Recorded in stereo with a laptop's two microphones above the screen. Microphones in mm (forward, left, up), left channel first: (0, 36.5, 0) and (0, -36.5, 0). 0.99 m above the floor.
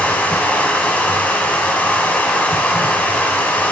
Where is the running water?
20° left (ahead or behind), 1.0 m.